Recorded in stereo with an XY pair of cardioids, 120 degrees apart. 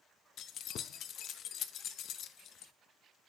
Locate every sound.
0.4 s keys jangling: 60° left, 0.7 m